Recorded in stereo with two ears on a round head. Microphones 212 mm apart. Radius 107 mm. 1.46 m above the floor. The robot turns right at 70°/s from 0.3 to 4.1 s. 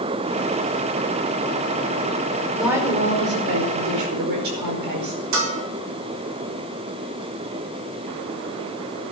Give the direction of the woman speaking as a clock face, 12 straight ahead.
6 o'clock.